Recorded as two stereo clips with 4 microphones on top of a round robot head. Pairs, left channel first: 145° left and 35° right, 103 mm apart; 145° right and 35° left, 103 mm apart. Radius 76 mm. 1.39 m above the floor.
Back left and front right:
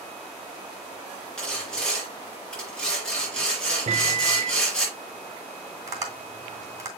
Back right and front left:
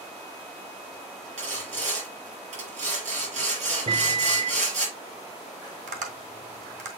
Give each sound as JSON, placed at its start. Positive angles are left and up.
{"t": 1.4, "sound": "sawing", "azimuth_deg": 65, "distance_m": 4.5}
{"t": 3.9, "sound": "a microwave", "azimuth_deg": -10, "distance_m": 0.8}
{"t": 5.9, "sound": "tapping", "azimuth_deg": 25, "distance_m": 2.5}